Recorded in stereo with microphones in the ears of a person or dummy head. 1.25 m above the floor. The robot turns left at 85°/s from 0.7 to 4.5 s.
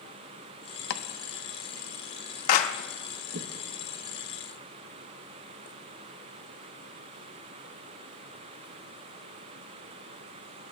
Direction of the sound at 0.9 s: 65° left (ahead or behind).